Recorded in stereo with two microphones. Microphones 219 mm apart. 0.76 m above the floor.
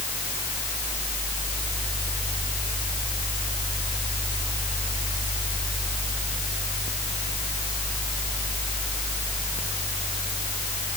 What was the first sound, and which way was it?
Only background noise.